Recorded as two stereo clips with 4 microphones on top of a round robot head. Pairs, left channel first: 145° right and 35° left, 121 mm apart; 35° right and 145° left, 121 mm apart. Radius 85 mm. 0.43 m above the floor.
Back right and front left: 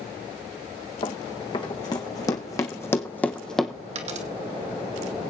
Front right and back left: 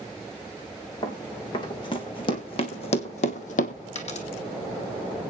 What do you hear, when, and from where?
1.0 s running footsteps: 95° right, 3 m; by 3.8 s 55° right, 1.3 m
4.0 s a dropped coin: straight ahead, 1.9 m